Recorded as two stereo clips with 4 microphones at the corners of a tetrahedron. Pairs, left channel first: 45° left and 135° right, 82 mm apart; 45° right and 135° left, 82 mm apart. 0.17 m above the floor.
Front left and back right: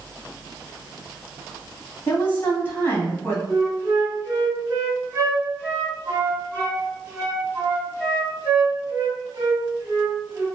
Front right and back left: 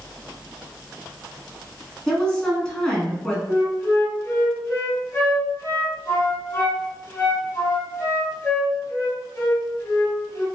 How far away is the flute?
About 2.0 m.